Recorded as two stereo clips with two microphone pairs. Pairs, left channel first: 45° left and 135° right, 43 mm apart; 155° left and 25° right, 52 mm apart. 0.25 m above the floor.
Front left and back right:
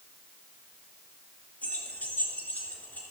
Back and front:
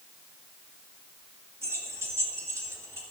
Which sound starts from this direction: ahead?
Keys jangling, at 1.6 s.